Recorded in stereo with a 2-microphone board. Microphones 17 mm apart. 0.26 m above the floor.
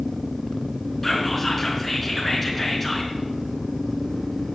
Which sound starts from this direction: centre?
Whispering, at 1.0 s.